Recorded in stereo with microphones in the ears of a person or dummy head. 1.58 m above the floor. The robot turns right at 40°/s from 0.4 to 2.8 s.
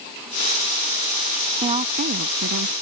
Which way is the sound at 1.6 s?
155° right.